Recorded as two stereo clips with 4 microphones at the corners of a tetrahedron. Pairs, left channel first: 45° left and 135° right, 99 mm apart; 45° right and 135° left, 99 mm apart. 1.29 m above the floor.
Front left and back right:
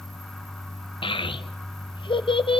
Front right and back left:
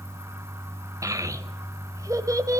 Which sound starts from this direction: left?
A child speaking, at 1.0 s.